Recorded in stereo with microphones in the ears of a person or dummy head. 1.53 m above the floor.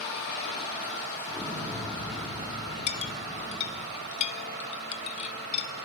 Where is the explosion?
Centre (ahead or behind), 3 m.